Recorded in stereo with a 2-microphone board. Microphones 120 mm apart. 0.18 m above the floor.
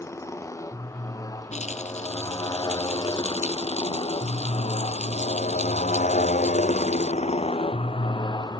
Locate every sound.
0.0 s a motorcycle: 25° left (ahead or behind); by 8.6 s 35° left (ahead or behind)
1.5 s a rattle: 70° left (ahead or behind)